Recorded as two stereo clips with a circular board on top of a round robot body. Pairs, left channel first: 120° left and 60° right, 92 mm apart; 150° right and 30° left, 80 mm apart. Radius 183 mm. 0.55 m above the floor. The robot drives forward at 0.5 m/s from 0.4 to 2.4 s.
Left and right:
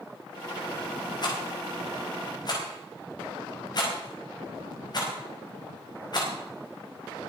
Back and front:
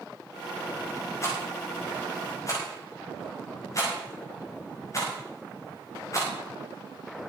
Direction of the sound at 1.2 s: 160° left.